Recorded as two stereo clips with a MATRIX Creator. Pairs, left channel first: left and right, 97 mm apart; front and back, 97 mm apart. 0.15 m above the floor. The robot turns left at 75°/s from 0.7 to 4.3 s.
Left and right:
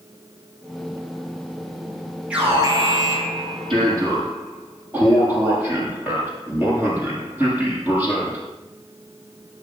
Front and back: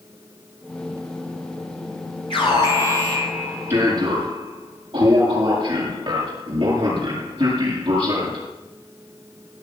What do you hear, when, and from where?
2.3 s an alarm: 10° right, 7.5 m; by 8.5 s 160° right, 7.5 m